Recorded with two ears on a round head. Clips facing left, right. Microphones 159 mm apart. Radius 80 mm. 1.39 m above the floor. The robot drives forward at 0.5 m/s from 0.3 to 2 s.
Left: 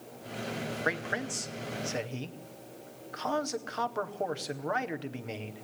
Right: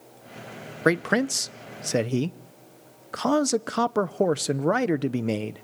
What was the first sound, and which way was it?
A man speaking, 65° right (ahead or behind).